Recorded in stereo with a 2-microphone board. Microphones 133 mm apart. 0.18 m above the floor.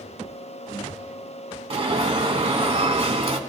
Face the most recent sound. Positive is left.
turn(degrees=-45)  # may be behind; listen again after turning